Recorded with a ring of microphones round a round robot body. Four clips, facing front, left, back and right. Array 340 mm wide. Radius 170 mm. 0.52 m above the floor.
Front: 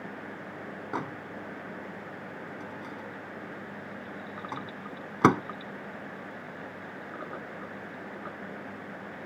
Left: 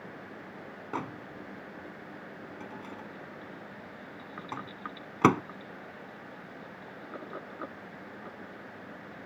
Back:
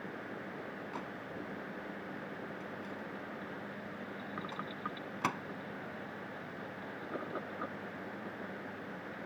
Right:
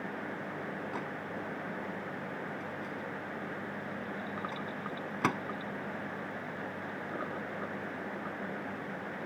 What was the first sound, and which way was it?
A microwave, 35° left.